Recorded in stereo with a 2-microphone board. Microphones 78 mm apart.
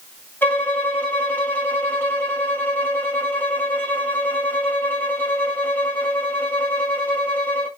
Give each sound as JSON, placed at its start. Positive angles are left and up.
{"t": 0.4, "sound": "a violin", "side_deg": 25, "distance_m": 2.5}